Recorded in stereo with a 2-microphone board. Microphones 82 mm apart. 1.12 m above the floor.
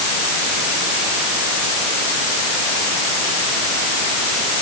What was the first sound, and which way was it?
Only background noise.